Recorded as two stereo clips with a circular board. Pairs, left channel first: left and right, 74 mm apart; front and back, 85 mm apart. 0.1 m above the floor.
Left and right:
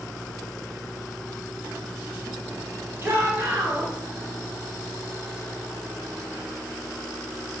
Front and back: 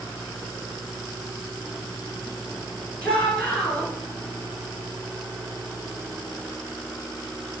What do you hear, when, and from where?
3.0 s a shout: 55° right, 1.6 m